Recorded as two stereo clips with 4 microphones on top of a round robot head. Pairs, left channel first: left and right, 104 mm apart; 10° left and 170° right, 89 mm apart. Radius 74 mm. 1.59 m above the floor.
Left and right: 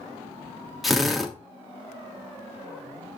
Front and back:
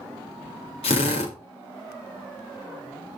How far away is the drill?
About 3 m.